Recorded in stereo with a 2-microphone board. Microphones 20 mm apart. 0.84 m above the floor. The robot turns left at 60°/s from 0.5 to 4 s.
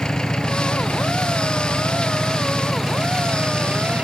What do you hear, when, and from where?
0.0 s an engine running: 140° left; by 4.0 s 70° right